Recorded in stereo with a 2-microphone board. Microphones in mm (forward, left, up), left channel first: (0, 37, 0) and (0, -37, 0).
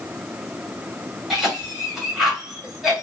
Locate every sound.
1.3 s a cough: 5° right (ahead or behind), 1.5 m